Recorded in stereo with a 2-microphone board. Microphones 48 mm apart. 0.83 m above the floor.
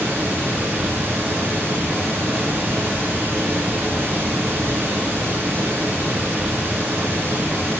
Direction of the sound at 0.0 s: 60° right (ahead or behind).